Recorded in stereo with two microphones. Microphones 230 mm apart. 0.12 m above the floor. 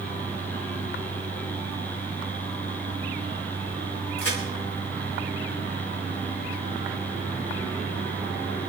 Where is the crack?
75° left (ahead or behind), 6 m.